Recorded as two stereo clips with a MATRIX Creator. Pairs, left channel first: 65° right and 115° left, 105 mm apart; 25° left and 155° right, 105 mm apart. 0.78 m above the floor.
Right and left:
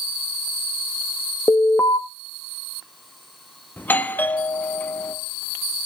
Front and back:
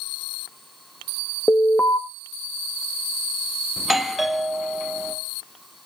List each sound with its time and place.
1.5 s an alarm: 30° right, 1.0 m
3.8 s a doorbell: 75° right, 0.8 m